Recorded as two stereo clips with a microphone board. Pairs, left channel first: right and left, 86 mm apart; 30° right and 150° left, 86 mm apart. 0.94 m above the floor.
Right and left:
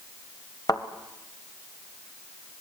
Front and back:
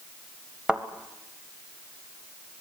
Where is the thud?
130° right, 1.8 m.